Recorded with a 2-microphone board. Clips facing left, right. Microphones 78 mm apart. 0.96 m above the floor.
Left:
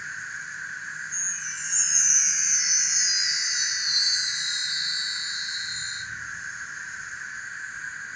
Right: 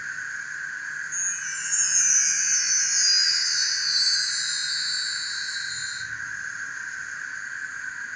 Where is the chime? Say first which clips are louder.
Right 3 dB; 50° left (ahead or behind), 0.6 m.